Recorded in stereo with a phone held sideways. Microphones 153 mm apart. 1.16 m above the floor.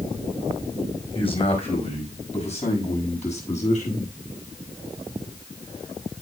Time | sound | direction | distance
1.1 | a man speaking | 35° left (ahead or behind) | 4.5 m